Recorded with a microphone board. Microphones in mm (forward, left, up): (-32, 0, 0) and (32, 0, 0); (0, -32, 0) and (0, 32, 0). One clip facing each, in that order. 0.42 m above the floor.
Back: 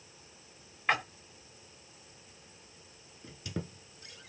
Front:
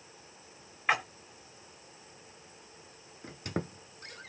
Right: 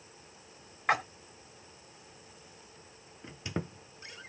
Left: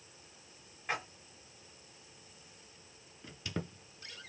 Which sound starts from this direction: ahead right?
A squeak, at 3.2 s.